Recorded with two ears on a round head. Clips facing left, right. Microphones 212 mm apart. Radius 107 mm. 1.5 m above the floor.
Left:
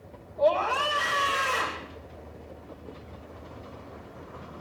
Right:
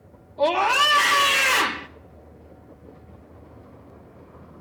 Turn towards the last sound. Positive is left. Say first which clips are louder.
# right 2 dB
turn(degrees=-85)